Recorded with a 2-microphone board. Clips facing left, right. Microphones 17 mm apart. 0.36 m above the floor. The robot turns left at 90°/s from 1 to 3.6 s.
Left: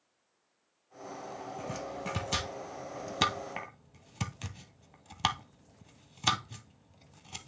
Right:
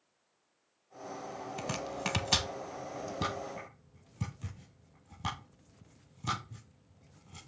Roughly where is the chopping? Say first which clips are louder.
Right 3 dB; right.